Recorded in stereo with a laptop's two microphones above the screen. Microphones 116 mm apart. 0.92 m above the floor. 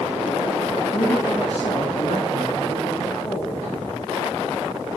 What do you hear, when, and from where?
0.9 s a woman speaking: 50° left (ahead or behind), 1.3 m